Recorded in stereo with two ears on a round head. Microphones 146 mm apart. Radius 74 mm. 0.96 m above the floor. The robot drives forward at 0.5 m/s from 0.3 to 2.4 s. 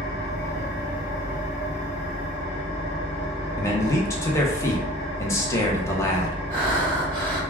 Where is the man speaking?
20° left (ahead or behind), 0.6 m.